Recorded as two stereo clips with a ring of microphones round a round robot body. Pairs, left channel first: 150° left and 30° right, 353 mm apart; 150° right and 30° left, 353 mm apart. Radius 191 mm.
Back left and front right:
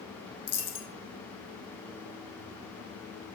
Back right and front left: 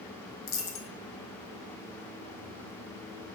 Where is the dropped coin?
165° left, 1.1 m.